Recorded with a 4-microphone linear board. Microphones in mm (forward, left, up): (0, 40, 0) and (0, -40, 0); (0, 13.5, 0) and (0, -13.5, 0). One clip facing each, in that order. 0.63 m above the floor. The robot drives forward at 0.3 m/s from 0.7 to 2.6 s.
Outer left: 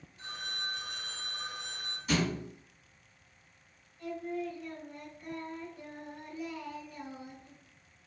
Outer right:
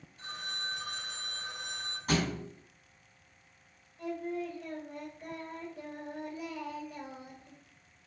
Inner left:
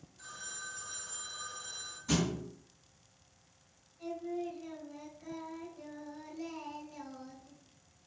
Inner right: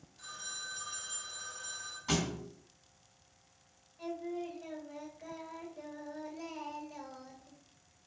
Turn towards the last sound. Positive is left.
turn(degrees=-80)